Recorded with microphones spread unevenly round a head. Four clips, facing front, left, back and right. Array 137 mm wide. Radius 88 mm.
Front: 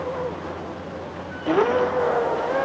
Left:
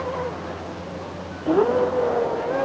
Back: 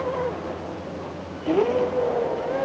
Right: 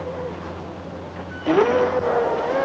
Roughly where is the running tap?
I don't hear a running tap.